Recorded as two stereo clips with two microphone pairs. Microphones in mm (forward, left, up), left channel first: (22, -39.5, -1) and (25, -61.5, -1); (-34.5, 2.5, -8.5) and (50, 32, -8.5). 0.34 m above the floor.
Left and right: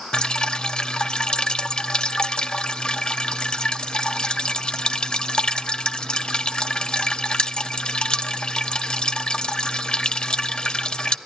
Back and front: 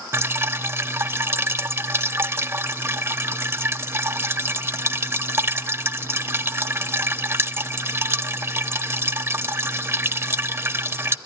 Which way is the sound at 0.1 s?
65° left.